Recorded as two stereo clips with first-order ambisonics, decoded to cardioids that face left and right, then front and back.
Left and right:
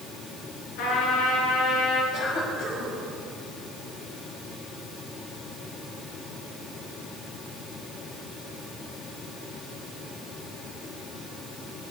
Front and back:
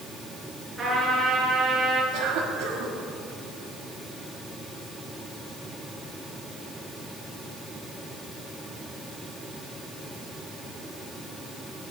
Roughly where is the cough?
Behind left.